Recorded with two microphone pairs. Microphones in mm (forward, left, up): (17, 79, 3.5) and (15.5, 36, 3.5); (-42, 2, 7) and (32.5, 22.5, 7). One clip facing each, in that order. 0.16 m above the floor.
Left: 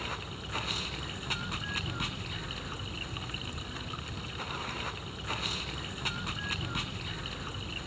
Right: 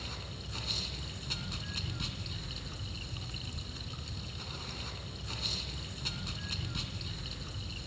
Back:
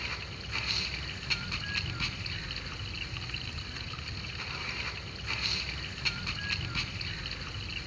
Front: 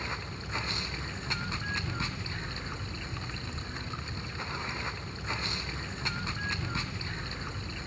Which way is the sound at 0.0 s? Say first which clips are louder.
Left 6 dB, front 4 dB; 70° left.